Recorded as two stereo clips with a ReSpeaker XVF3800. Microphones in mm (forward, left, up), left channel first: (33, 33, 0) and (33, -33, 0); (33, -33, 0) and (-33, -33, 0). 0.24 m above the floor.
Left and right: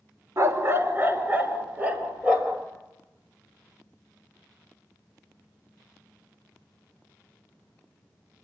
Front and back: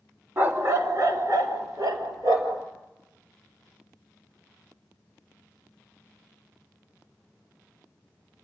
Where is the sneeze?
No sneeze in this recording.